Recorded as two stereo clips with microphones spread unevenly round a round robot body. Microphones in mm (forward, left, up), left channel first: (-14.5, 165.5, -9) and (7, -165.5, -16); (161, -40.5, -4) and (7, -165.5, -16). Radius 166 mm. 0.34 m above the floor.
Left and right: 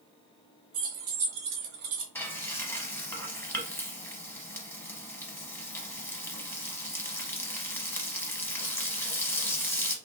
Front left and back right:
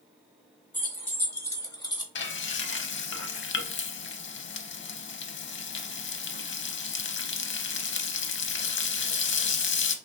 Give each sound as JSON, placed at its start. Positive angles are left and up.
{"t": 0.7, "sound": "keys jangling", "azimuth_deg": -40, "distance_m": 2.0}
{"t": 2.1, "sound": "frying", "azimuth_deg": 10, "distance_m": 0.8}